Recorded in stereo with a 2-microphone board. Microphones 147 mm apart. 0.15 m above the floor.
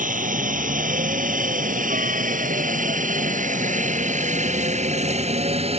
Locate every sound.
0.0 s a helicopter: 65° right (ahead or behind); by 5.8 s 40° right (ahead or behind)